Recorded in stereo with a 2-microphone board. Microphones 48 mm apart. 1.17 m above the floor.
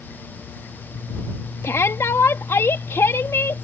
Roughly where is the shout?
Left.